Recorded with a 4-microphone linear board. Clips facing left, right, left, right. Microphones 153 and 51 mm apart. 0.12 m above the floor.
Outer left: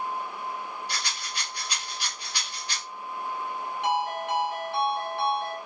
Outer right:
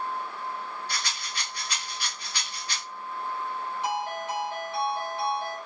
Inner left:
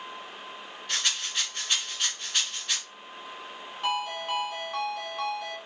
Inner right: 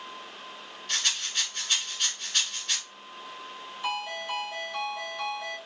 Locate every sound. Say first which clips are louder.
0.9 s a rattle: even, even; 15° left (ahead or behind), 1.8 m
3.8 s a ringtone: outer left 4 dB, inner left 3 dB; 65° left (ahead or behind), 2 m